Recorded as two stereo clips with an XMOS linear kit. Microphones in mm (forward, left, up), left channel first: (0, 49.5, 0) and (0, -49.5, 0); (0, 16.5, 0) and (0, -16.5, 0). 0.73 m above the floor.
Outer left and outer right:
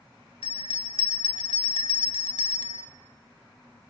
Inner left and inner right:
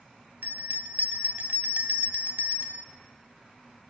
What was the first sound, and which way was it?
A bell, 60° right (ahead or behind).